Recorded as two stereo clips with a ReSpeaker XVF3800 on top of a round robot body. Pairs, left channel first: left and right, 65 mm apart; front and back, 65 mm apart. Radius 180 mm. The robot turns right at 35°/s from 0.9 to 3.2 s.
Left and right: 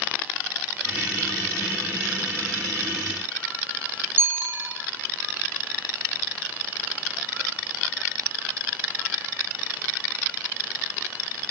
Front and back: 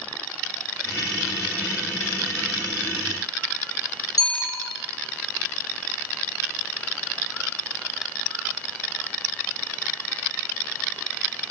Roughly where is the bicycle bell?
Ahead right.